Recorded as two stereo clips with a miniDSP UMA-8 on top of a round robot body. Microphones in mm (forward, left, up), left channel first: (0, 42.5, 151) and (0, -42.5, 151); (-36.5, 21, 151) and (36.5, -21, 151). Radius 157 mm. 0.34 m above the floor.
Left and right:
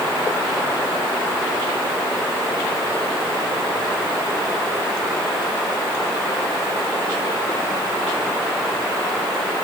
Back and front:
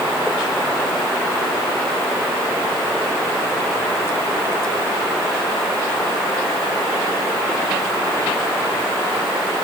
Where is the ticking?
I don't hear ticking.